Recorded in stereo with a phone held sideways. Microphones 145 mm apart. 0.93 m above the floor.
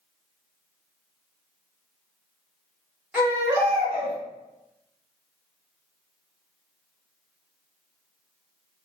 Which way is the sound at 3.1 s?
10° right (ahead or behind).